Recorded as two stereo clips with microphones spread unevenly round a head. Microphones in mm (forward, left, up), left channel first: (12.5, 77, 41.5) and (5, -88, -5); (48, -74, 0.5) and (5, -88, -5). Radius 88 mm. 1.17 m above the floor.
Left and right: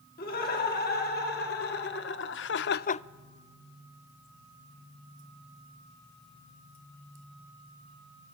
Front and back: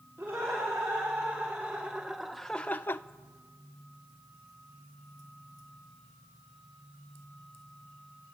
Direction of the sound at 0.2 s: 130° left.